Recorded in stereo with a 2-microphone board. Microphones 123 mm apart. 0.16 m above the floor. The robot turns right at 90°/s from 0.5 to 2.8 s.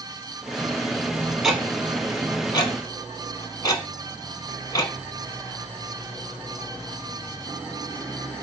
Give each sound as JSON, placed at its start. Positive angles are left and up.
{"t": 1.4, "sound": "ticking", "side_deg": -5, "distance_m": 1.0}